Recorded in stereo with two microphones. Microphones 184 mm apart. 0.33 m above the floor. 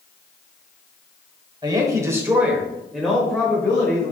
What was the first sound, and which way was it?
A woman speaking, 20° right (ahead or behind).